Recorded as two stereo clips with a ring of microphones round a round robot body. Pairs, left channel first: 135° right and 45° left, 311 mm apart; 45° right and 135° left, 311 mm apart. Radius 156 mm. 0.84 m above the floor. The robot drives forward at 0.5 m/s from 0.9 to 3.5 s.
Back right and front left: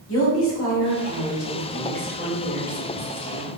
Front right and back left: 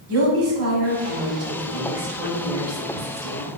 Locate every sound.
0.1 s a woman speaking: straight behind, 3 m